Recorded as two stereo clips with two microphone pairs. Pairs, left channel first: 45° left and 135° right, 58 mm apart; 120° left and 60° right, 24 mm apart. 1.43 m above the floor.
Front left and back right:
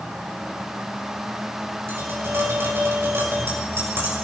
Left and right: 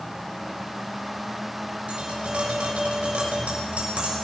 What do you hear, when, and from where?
1.9 s tapping: 90° right, 6.5 m